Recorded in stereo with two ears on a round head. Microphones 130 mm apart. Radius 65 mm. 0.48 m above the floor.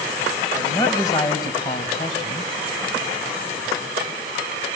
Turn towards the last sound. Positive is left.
turn(degrees=35)  # may be behind; listen again after turning